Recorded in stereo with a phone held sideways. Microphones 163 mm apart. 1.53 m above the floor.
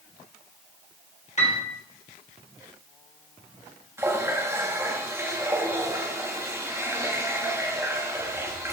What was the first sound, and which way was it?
A piano, 45° left (ahead or behind).